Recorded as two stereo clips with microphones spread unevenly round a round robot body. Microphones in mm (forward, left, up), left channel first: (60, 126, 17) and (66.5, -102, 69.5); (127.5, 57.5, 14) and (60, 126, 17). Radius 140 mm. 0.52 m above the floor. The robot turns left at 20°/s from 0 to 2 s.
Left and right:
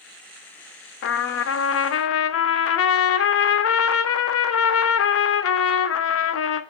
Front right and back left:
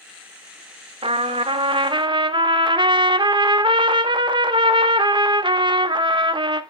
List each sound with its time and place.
1.0 s a trumpet: 110° left, 0.6 m; by 6.6 s 95° left, 0.6 m